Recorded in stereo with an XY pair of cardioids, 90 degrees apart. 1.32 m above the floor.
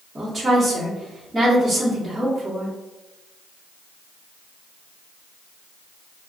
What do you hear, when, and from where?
0.1 s a woman speaking: 25° right, 1.5 m